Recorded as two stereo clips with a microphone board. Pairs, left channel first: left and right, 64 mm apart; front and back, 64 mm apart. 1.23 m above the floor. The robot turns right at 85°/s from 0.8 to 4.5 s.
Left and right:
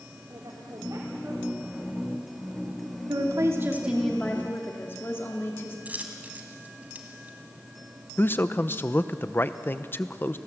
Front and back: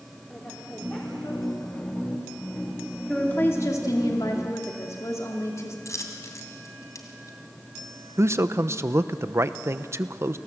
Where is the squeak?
I don't hear a squeak.